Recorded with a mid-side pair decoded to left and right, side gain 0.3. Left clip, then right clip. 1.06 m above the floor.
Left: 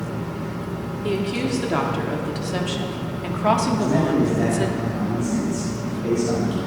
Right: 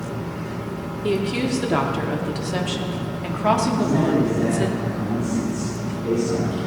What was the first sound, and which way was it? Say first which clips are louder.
A woman speaking: right 2 dB; 25° right.